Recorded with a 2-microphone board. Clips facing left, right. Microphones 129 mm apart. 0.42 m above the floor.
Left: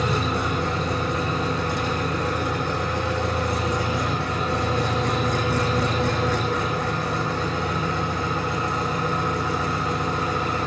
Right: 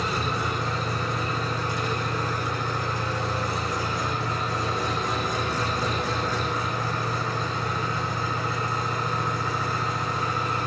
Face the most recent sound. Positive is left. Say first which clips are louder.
# left 4 dB
turn(degrees=70)  # may be behind; listen again after turning